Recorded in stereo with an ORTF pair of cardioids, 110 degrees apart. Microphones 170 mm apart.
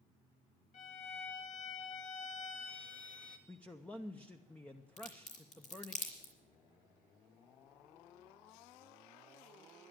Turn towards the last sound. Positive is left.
turn(degrees=55)